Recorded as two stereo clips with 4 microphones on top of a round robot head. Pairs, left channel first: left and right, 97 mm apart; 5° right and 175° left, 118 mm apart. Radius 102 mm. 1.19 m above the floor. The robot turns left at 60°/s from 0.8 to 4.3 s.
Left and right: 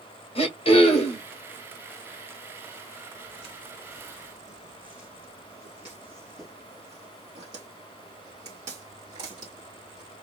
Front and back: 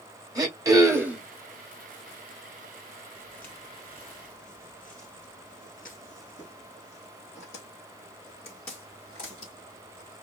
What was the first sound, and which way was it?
Throat clearing, 115° left.